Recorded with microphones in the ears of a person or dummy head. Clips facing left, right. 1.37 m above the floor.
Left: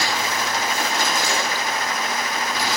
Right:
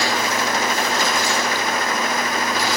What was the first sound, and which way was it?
Only background noise.